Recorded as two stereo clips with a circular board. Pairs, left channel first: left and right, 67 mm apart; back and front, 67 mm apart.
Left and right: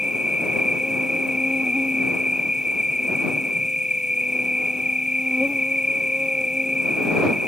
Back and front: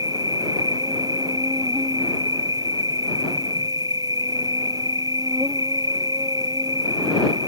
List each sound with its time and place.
0.0 s an insect: 10° right